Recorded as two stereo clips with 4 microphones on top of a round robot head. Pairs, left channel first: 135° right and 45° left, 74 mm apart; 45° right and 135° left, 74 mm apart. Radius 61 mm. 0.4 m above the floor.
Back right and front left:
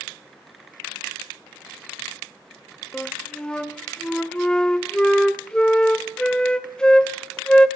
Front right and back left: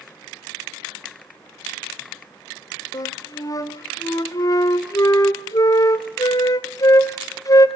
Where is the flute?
60° right, 1.1 m.